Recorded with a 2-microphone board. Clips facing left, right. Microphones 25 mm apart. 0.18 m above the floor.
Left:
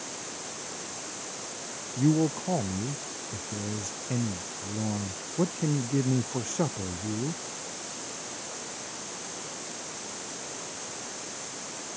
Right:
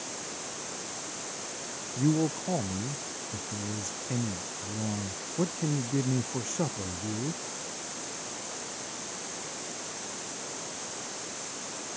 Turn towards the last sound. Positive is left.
turn(degrees=5)  # may be behind; listen again after turning